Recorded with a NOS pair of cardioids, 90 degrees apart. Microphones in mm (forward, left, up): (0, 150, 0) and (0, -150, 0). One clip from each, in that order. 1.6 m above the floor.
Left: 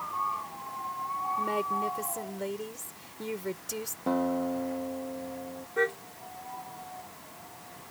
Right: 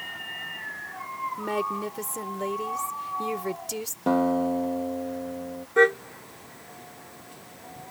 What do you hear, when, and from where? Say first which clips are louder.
1.4 s a woman speaking: right 1 dB; 25° right
4.1 s a guitar: right 6 dB; 40° right
5.8 s a car horn: right 9 dB; 65° right